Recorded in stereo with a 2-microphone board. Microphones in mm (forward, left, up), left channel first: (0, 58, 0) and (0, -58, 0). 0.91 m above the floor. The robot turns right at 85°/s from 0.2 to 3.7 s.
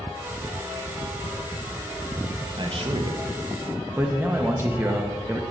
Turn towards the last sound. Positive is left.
turn(degrees=-25)